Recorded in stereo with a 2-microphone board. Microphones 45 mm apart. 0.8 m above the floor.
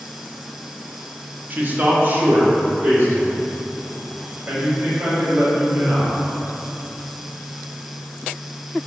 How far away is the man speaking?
About 0.6 m.